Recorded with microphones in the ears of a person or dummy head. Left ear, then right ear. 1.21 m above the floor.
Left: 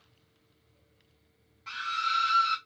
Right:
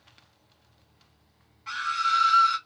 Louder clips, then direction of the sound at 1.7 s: Right 4 dB; 5° left (ahead or behind).